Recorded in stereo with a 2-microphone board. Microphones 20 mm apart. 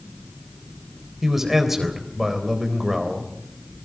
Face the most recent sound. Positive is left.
turn(degrees=-15)  # may be behind; listen again after turning